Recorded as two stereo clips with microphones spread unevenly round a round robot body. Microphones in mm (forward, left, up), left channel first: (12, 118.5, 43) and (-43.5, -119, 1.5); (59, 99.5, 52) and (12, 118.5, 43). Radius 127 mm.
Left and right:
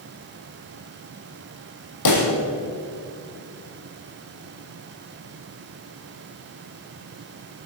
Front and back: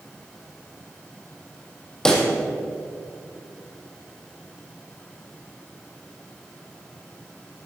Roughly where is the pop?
Ahead left.